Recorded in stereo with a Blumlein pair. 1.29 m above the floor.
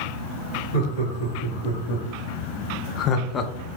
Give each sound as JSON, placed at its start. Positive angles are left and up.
{"t": 0.7, "sound": "laughter", "azimuth_deg": 60, "distance_m": 1.9}